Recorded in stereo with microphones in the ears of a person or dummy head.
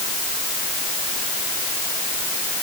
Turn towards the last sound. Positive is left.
No sound to turn to.